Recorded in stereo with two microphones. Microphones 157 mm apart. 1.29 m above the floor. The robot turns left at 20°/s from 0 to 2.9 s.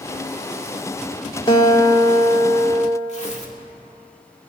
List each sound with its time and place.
1.5 s a guitar: 30° left (ahead or behind), 1.2 m; by 3.0 s 10° left (ahead or behind), 1.2 m
3.1 s tearing paper: 45° left (ahead or behind), 2 m